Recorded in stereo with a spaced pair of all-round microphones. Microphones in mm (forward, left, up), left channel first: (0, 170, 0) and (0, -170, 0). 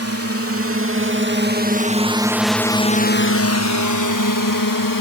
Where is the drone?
45° right (ahead or behind); by 5.0 s 75° left (ahead or behind).